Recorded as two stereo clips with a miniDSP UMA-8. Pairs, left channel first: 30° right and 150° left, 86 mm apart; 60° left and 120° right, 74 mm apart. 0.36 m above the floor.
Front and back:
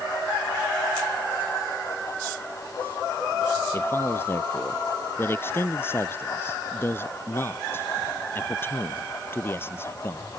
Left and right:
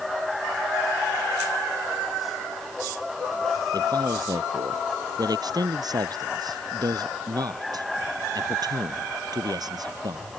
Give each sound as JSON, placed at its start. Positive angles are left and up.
{"t": 3.7, "sound": "a man speaking", "azimuth_deg": -90}